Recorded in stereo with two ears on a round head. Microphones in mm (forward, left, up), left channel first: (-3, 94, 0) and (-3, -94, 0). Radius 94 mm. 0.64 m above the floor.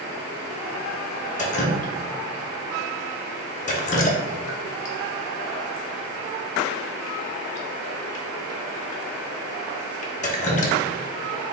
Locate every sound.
1.4 s dripping: 35° left (ahead or behind), 0.6 m